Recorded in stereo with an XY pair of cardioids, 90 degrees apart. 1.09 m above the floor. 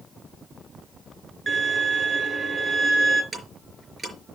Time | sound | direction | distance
1.5 | a violin | 40° right | 6 m
3.3 | ticking | 35° right | 4.5 m